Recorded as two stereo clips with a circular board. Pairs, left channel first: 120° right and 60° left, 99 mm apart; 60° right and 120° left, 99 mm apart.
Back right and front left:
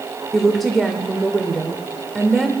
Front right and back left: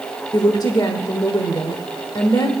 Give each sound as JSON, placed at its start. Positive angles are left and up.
{"t": 0.3, "sound": "a woman speaking", "azimuth_deg": -30, "distance_m": 1.2}